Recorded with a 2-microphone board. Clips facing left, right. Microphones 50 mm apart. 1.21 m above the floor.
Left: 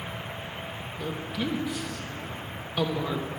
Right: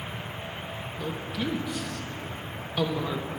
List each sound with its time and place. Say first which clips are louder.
1.0 s a woman speaking: left 1 dB; 5° left (ahead or behind), 1.0 m